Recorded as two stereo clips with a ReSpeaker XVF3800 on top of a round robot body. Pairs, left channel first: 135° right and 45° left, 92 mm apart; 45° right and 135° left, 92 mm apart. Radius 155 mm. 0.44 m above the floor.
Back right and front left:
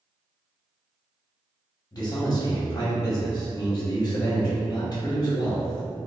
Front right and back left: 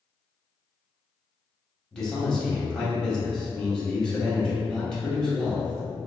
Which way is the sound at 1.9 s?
125° right.